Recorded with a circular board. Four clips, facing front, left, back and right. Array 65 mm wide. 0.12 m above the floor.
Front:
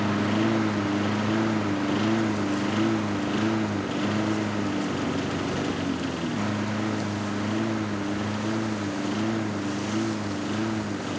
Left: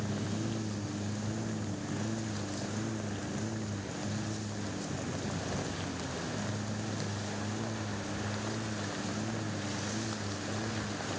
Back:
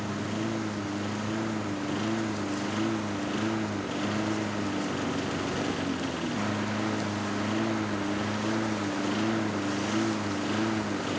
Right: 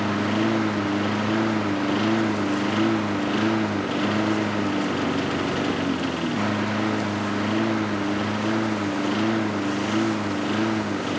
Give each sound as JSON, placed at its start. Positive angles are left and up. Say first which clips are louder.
{"t": 0.0, "sound": "a lawn mower", "louder": "right 14 dB, front 8 dB", "azimuth_deg": -65}